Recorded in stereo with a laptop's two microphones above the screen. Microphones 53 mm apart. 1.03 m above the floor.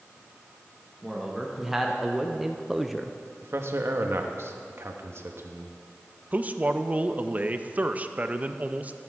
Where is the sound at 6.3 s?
30° right (ahead or behind), 0.7 m.